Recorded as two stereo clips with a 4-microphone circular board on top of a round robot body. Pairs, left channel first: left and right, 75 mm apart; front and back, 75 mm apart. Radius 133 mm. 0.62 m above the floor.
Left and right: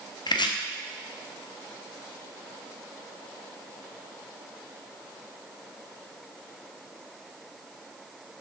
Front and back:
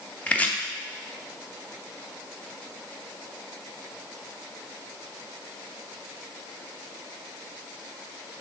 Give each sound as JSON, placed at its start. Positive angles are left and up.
{"t": 0.3, "sound": "chopping", "azimuth_deg": 70, "distance_m": 0.9}